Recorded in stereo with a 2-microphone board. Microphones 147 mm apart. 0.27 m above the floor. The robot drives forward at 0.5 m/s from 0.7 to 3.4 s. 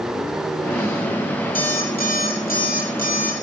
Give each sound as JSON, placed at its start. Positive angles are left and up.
{"t": 1.6, "sound": "an alarm clock", "side_deg": 75, "distance_m": 4.5}